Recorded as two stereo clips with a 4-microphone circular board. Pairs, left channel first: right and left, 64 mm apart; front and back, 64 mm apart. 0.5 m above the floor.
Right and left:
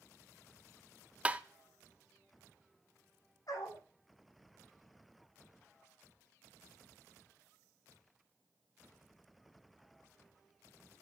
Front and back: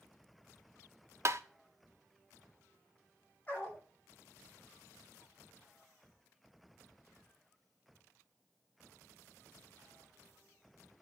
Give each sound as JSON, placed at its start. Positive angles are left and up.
{"t": 1.2, "sound": "tapping", "azimuth_deg": 155, "distance_m": 0.6}
{"t": 3.5, "sound": "a dog barking", "azimuth_deg": -70, "distance_m": 8.5}